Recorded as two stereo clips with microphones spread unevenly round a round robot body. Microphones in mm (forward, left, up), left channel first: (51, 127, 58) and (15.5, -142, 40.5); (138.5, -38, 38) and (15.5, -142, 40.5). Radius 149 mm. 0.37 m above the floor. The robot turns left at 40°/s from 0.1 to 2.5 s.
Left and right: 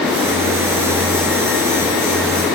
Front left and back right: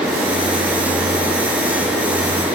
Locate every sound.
Only background noise.